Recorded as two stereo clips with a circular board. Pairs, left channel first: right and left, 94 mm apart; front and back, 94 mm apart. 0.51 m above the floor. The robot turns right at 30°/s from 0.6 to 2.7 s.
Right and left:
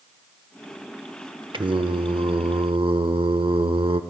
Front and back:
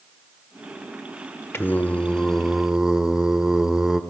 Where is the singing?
60° left, 0.8 m; by 4.0 s 95° left, 0.8 m.